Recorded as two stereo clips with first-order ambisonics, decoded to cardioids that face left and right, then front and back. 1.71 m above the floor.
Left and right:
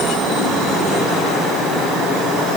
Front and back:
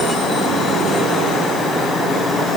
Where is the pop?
I don't hear a pop.